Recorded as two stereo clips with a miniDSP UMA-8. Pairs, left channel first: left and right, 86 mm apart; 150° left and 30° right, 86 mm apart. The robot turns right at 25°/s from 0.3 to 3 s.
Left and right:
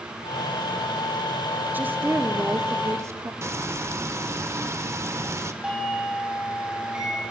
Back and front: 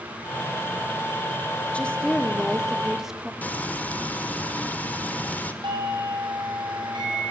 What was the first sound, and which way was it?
A woman speaking, 145° right.